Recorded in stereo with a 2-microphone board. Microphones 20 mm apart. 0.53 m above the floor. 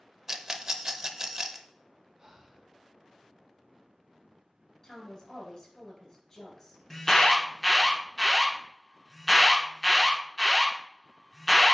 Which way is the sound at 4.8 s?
35° left (ahead or behind).